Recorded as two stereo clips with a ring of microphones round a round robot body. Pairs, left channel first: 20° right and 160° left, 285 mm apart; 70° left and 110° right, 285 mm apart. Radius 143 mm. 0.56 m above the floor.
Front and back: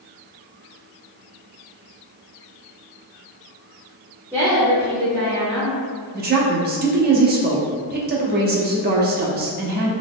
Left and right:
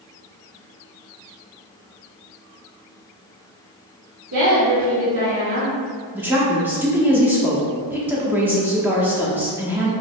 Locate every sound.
4.3 s a woman speaking: 120° right, 1.3 m
6.1 s a woman speaking: 170° left, 0.8 m